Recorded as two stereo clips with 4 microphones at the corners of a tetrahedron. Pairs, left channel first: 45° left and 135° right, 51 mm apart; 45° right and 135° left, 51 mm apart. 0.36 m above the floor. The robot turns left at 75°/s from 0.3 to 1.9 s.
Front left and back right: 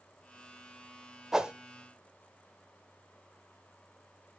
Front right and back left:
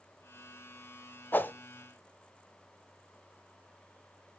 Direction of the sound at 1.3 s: 55° right.